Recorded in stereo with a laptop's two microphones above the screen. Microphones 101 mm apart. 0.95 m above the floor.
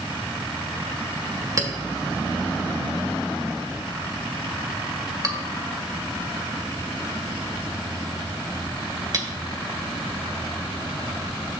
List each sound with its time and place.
1.6 s a clink: 35° right (ahead or behind), 1.8 m